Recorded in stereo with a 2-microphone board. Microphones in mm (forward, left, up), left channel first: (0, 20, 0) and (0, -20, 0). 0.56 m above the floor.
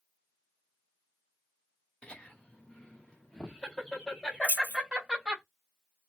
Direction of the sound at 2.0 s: 30° left (ahead or behind).